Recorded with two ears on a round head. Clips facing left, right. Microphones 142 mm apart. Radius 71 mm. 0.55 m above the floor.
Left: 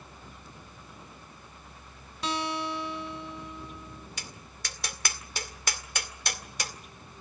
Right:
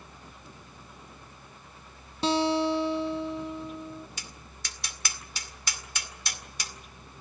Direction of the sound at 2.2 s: 25° right (ahead or behind).